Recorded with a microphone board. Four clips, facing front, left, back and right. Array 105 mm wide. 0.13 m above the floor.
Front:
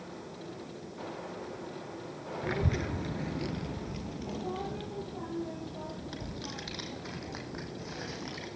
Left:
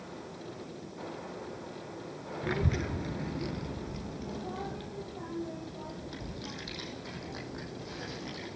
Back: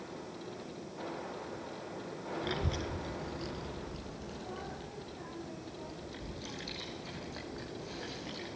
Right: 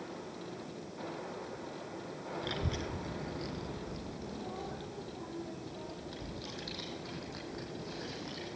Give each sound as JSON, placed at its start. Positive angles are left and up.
{"t": 2.4, "sound": "a child speaking", "azimuth_deg": 55, "distance_m": 1.0}